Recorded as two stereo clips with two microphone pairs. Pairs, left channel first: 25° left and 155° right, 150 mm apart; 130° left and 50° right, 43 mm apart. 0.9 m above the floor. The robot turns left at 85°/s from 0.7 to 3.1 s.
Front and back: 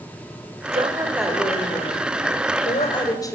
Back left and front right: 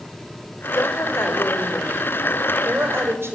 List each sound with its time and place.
0.7 s a woman speaking: 165° left, 4 m; by 3.4 s 40° right, 4 m